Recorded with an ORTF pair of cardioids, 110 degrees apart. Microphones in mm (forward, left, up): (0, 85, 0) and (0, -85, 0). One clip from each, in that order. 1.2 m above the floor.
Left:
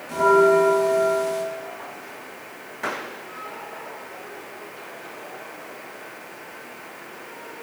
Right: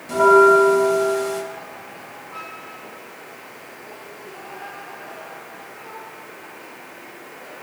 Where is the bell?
45° right, 2.5 m.